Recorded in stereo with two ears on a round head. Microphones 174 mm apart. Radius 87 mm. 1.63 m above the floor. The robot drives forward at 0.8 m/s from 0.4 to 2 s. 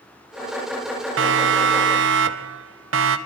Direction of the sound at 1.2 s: 70° right (ahead or behind).